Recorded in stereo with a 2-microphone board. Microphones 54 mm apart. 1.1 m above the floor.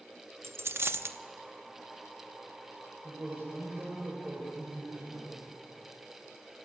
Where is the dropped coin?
55° right (ahead or behind), 0.7 m.